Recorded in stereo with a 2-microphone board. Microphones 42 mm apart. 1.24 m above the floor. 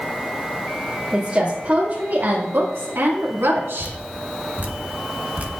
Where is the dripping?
40° right (ahead or behind), 1.2 m.